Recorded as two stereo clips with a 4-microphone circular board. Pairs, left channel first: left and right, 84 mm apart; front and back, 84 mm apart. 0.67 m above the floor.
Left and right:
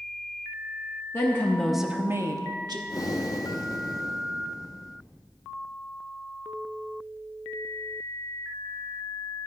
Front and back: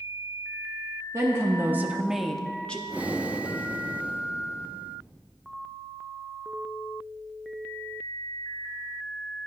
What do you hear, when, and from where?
1.1 s a woman speaking: 135° left, 0.8 m; by 2.8 s 75° right, 0.9 m
2.9 s breathing: 115° left, 0.5 m